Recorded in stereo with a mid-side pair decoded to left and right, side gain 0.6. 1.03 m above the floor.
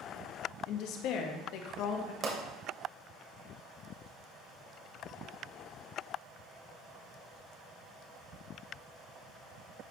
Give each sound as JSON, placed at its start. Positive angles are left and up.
{"t": 0.7, "sound": "a woman speaking", "azimuth_deg": 70, "distance_m": 1.2}
{"t": 2.2, "sound": "a pop", "azimuth_deg": -50, "distance_m": 2.5}